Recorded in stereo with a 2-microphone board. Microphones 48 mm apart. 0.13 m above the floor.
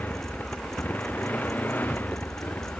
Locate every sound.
0.0 s a motorcycle: 40° left (ahead or behind)